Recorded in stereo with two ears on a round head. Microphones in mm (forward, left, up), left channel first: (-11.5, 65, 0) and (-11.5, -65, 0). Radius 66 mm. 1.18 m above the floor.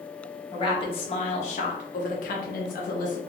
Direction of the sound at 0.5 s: 35° left (ahead or behind).